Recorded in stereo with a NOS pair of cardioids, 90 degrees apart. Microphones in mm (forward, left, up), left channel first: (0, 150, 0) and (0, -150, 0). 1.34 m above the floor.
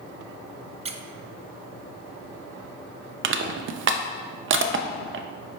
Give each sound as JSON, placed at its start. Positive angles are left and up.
{"t": 0.8, "sound": "a squeak", "azimuth_deg": -20, "distance_m": 0.7}
{"t": 3.2, "sound": "crushing", "azimuth_deg": -40, "distance_m": 0.7}